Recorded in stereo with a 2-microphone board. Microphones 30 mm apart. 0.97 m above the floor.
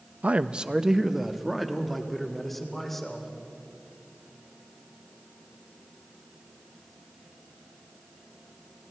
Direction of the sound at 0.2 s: 50° right (ahead or behind).